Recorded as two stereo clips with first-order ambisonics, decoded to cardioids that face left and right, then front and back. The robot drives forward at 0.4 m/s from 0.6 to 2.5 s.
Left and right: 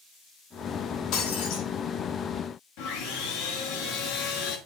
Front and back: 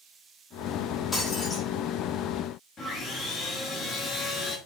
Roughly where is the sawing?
Left.